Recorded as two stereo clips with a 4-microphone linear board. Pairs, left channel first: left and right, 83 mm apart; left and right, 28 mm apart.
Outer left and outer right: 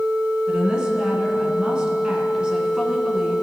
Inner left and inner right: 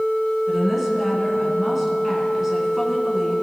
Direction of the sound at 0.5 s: 10° right (ahead or behind).